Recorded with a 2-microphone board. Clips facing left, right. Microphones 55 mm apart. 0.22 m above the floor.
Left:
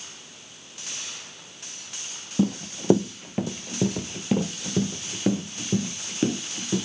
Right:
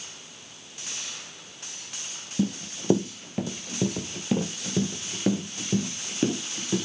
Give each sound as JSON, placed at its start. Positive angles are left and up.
{"t": 2.4, "sound": "running footsteps", "side_deg": 35, "distance_m": 0.6}